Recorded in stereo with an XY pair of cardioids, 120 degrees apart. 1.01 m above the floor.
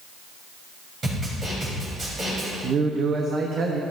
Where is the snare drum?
35° right, 4 m.